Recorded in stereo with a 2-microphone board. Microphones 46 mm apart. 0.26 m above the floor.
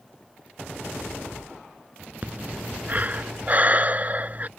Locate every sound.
2.2 s breathing: 40° right (ahead or behind)